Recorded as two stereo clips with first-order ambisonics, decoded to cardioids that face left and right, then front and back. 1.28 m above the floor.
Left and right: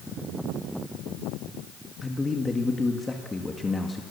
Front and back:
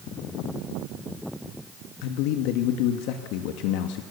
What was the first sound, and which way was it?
A man speaking, 15° left.